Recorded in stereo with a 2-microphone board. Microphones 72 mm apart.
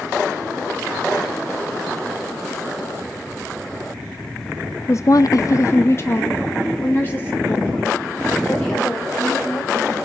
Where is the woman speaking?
40° left (ahead or behind), 0.6 m; by 10.0 s 20° left (ahead or behind), 5.5 m.